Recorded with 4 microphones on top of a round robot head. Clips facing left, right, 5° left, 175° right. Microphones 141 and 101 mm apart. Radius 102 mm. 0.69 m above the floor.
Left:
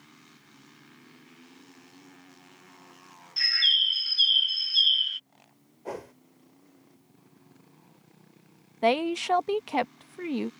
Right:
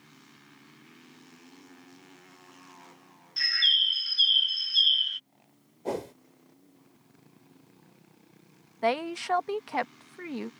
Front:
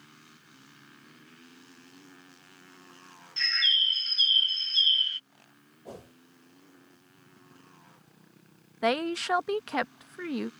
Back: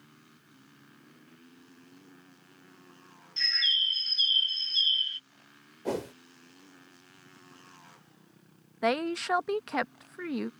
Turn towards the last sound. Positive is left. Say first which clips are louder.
# left 4 dB, front 1 dB
turn(degrees=95)